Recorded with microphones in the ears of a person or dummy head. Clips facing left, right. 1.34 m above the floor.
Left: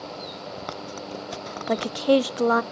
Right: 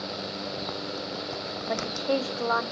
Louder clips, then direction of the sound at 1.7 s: Left 8 dB; 45° left (ahead or behind).